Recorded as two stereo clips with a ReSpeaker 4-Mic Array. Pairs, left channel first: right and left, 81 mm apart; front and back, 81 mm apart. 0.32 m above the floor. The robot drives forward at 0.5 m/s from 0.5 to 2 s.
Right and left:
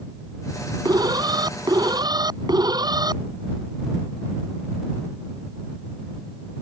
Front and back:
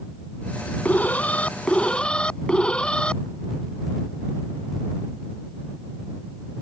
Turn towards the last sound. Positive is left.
turn(degrees=75)